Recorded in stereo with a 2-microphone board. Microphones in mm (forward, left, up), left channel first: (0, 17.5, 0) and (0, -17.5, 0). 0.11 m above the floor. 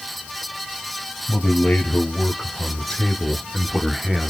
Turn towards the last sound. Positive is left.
turn(degrees=-15)  # may be behind; listen again after turning